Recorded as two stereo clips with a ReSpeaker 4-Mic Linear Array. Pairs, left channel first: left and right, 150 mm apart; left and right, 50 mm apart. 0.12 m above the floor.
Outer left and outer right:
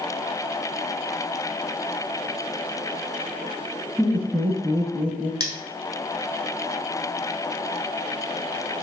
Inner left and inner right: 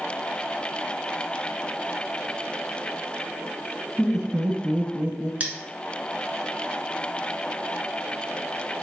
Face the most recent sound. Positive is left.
turn(degrees=-25)  # may be behind; listen again after turning